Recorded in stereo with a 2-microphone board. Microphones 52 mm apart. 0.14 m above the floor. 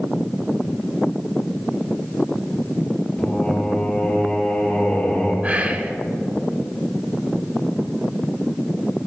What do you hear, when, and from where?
3.2 s singing: 20° left (ahead or behind), 3 m
5.4 s whispering: 35° right (ahead or behind), 1.2 m